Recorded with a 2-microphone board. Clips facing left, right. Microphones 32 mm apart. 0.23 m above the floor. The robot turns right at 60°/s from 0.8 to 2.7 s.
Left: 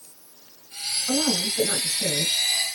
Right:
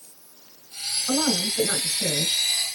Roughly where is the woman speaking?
Right.